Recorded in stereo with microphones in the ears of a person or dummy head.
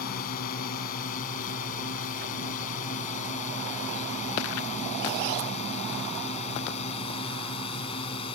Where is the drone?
50° left (ahead or behind); by 8.3 s 30° left (ahead or behind).